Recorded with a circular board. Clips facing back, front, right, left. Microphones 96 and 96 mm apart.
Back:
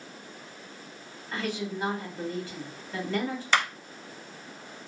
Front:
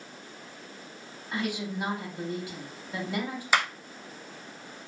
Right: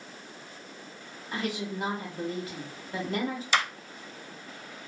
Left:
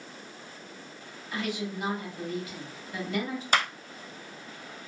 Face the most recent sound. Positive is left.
turn(degrees=75)